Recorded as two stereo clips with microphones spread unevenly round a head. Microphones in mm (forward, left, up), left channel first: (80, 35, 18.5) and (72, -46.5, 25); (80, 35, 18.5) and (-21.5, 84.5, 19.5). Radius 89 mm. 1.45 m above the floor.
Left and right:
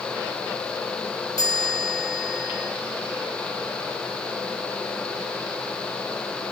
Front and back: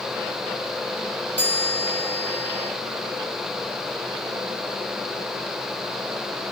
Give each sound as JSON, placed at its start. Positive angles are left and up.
{"t": 1.4, "sound": "a chime", "azimuth_deg": 50, "distance_m": 4.5}